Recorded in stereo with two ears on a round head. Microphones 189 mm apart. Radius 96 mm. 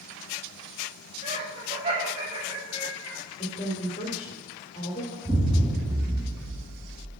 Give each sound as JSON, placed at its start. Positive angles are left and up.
{"t": 1.2, "sound": "laughter", "side_deg": -30, "distance_m": 2.0}
{"t": 3.4, "sound": "a woman speaking", "side_deg": 30, "distance_m": 2.5}
{"t": 5.2, "sound": "an explosion", "side_deg": -15, "distance_m": 1.3}